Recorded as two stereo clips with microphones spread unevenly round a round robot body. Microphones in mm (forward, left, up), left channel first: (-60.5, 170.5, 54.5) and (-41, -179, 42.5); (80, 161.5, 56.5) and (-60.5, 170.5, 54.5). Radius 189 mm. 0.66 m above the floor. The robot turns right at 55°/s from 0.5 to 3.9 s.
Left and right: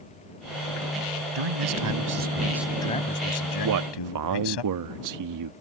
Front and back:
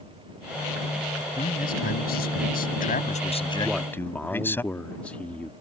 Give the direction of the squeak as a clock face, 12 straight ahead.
No squeak in this recording.